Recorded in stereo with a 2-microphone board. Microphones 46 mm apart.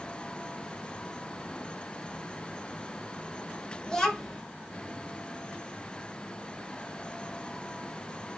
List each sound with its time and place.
3.9 s a child speaking: 15° left (ahead or behind), 0.8 m